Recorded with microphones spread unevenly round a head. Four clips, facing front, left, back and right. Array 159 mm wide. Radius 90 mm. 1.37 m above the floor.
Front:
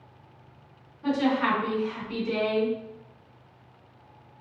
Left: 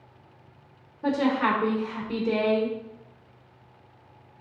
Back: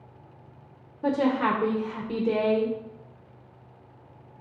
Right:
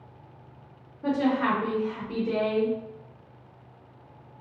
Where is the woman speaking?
Straight behind, 0.9 m.